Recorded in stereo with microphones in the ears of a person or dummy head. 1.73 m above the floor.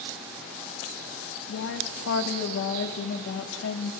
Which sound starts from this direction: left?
A woman speaking, at 1.5 s.